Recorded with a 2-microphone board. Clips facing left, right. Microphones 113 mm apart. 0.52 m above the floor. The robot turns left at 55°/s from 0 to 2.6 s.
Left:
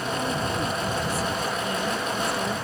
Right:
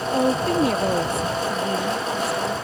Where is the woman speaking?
60° right; by 2.6 s 165° left.